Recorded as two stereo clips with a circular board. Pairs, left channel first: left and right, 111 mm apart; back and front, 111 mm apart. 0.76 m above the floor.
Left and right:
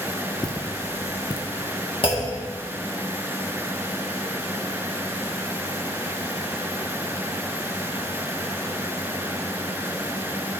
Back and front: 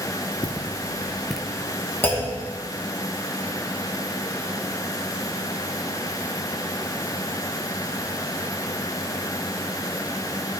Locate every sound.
0.4 s footsteps: 175° left, 1.0 m; by 1.5 s 80° left, 0.9 m
2.0 s a clunk: 115° left, 1.5 m